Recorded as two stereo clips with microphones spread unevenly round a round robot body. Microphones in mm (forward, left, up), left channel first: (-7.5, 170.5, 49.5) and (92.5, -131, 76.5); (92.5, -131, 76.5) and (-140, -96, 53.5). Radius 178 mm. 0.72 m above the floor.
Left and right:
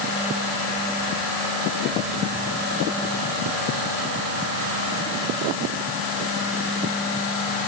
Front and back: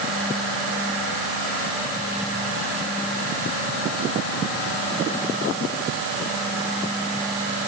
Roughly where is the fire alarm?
No fire alarm in this recording.